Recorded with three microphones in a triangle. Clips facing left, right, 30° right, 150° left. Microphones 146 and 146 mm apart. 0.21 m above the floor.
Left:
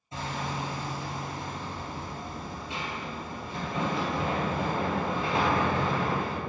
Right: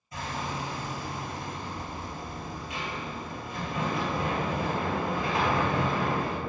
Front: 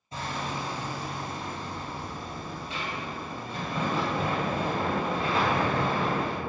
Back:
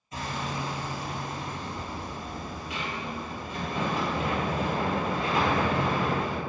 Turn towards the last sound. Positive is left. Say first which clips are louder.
# left 1 dB, even
turn(degrees=25)